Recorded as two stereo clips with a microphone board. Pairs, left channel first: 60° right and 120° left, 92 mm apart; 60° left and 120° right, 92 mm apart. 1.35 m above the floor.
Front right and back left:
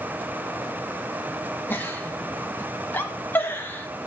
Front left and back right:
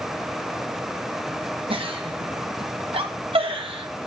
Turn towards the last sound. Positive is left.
turn(degrees=-130)